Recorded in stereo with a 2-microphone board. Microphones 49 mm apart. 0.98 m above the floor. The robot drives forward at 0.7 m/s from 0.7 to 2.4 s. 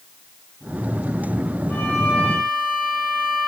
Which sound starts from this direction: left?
A violin, at 1.7 s.